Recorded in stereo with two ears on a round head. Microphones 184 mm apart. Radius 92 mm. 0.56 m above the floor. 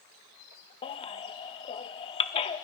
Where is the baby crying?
25° left (ahead or behind), 0.5 m.